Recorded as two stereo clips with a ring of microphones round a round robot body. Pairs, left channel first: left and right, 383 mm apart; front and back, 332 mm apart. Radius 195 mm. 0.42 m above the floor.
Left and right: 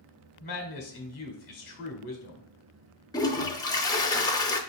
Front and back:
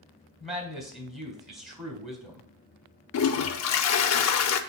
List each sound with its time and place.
0.4 s a man speaking: 125° left, 1.2 m
3.1 s a toilet flushing: 15° left, 0.6 m